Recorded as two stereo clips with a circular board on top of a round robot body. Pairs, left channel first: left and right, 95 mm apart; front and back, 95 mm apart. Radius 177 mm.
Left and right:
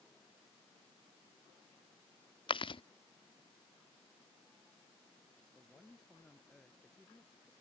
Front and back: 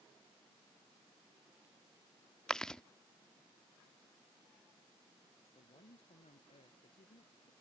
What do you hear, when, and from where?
2.5 s chewing: 85° left
5.4 s a woman speaking: 5° left